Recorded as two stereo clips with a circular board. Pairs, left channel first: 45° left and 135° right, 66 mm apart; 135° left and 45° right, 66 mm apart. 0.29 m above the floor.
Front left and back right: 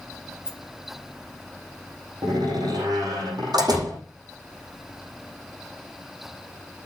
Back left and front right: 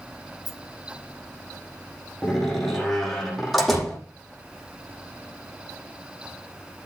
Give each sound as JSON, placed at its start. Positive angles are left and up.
{"t": 0.5, "sound": "a rattle", "azimuth_deg": -55, "distance_m": 2.5}
{"t": 2.2, "sound": "a door slam", "azimuth_deg": -135, "distance_m": 8.0}